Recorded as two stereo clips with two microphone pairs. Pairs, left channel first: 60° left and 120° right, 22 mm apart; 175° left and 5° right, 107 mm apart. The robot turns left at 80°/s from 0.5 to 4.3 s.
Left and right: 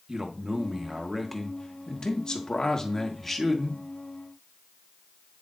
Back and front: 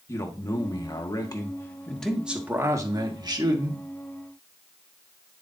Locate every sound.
0.1 s a man speaking: 150° right, 1.2 m; by 3.8 s 55° right, 1.2 m